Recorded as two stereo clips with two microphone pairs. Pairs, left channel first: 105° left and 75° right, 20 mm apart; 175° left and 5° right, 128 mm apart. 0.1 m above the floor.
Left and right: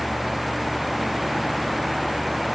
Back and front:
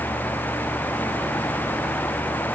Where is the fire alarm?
I don't hear a fire alarm.